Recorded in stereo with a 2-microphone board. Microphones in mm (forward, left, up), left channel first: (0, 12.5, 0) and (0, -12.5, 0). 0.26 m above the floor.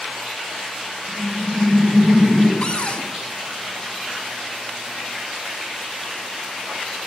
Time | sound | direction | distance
1.1 | laughter | 25° right (ahead or behind) | 1.9 m
2.6 | a cupboard door | 50° left (ahead or behind) | 0.6 m